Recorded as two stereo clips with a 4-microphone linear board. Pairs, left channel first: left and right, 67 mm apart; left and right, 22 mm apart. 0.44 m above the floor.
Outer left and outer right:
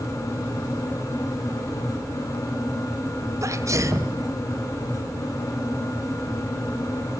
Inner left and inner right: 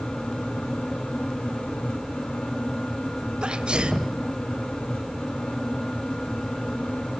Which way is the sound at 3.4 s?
50° right (ahead or behind).